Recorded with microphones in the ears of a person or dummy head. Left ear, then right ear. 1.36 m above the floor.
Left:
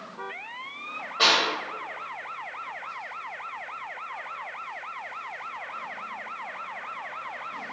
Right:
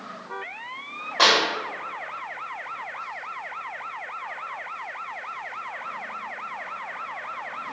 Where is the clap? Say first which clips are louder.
Right 3 dB; 55° right (ahead or behind), 1.5 m.